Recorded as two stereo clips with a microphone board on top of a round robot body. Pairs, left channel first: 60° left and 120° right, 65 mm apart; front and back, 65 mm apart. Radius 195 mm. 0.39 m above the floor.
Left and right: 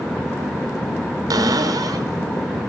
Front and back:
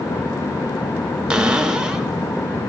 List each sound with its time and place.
1.3 s a cupboard door: 105° right, 1.1 m